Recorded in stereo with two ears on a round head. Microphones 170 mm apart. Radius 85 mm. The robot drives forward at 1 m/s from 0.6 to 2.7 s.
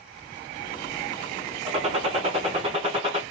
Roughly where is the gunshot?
Right.